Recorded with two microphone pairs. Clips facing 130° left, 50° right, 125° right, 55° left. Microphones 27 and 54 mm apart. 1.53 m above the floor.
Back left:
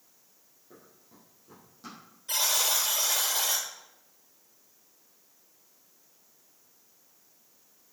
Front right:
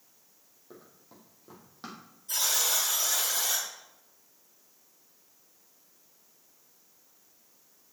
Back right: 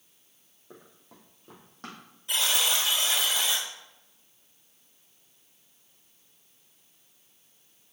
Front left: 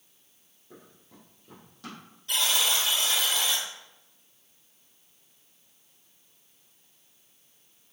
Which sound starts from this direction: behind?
A buzzer, at 2.3 s.